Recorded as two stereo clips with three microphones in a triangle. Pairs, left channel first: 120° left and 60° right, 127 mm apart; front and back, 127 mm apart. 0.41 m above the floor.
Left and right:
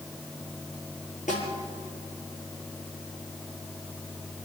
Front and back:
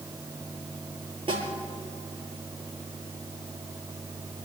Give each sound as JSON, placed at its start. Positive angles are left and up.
{"t": 1.3, "sound": "a snare drum", "azimuth_deg": 130, "distance_m": 8.0}